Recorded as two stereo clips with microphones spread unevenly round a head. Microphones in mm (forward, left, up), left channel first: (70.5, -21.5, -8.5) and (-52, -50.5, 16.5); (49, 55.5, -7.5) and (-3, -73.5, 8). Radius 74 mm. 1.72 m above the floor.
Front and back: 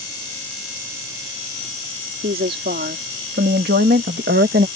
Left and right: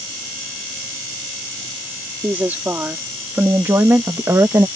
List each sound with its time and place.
2.2 s a woman speaking: 170° left; by 4.7 s 175° left